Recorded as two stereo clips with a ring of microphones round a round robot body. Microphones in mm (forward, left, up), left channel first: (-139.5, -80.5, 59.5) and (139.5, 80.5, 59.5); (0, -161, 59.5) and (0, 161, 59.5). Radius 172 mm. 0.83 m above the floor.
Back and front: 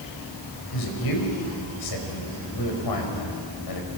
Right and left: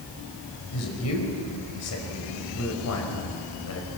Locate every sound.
0.7 s a man speaking: 135° right, 5 m